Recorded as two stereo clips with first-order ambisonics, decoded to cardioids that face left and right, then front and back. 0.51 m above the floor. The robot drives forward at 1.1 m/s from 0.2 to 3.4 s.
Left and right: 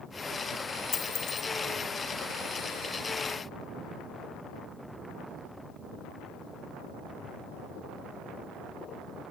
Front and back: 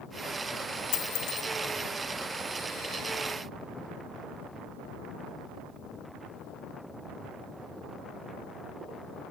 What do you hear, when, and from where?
0.9 s a dropped coin: 20° left, 1.0 m; by 1.5 s 40° left, 0.5 m